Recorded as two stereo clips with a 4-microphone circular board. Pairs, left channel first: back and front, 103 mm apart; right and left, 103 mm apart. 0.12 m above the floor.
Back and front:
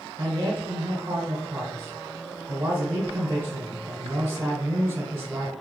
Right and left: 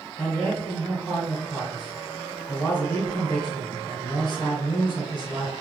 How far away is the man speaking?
About 1.2 m.